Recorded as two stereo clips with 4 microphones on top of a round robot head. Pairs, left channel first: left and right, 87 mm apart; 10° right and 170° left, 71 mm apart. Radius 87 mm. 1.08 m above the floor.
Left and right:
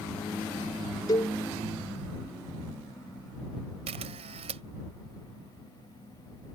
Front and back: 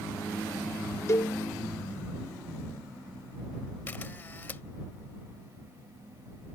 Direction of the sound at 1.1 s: 35° left.